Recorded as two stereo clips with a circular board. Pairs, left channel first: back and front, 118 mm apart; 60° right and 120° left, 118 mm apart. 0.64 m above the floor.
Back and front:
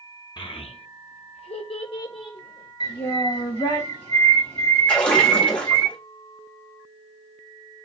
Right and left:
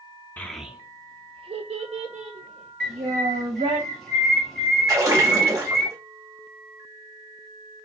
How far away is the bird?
About 1.3 m.